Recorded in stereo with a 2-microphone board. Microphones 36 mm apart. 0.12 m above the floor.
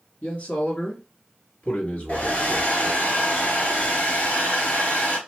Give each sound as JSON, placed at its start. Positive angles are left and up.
{"t": 0.2, "sound": "a man speaking", "side_deg": 45, "distance_m": 2.5}
{"t": 2.1, "sound": "a hair dryer", "side_deg": 45, "distance_m": 2.0}